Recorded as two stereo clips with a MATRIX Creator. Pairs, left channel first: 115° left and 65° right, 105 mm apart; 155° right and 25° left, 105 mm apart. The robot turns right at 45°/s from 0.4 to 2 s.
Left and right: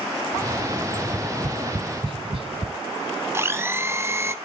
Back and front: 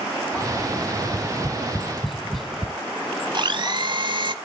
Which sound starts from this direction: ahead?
A blender, at 3.3 s.